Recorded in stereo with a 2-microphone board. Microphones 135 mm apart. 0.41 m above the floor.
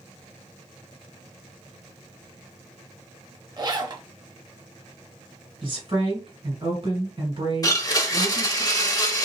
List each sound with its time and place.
3.6 s a zipper: 35° right (ahead or behind), 0.6 m
5.6 s a woman speaking: 45° right (ahead or behind), 2.5 m
7.6 s a blender: 30° left (ahead or behind), 0.6 m